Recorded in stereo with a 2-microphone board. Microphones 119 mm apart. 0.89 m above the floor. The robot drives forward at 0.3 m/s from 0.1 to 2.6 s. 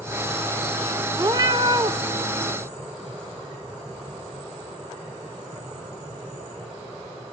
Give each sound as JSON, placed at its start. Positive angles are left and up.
{"t": 1.2, "sound": "a cat meowing", "side_deg": -35, "distance_m": 0.6}